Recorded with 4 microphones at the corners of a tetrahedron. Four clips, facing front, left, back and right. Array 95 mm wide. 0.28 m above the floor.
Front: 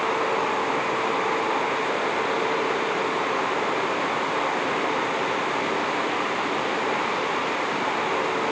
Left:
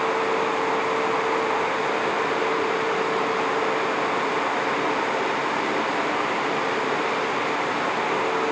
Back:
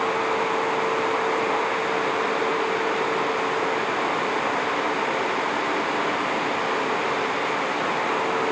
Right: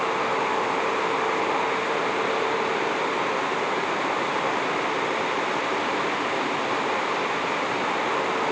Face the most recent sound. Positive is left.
No sound to turn to.